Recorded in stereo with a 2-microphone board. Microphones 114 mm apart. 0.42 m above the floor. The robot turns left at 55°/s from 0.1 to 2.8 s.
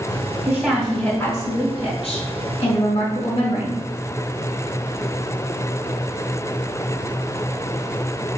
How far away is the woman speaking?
About 2.5 m.